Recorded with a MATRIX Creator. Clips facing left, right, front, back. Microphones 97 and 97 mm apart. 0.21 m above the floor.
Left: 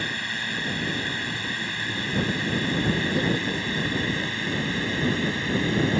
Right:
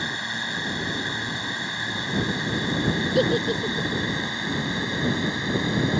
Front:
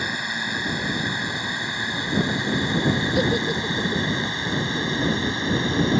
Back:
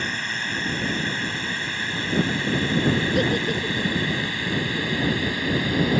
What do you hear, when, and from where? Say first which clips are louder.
0.0 s a drone: right 1 dB, front 1 dB; 55° right; by 6.0 s 40° right
3.1 s a giggle: right 4 dB, front 1 dB; 85° right